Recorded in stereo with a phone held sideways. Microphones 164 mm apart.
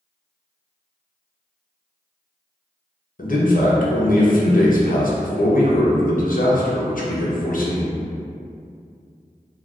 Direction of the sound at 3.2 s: 65° left (ahead or behind).